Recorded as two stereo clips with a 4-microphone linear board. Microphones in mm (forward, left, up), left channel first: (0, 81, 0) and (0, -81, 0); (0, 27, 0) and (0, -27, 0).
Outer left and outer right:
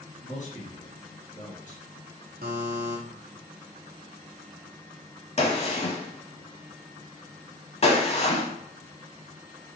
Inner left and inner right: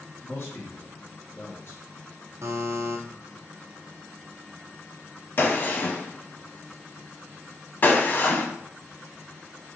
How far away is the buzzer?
About 1.2 m.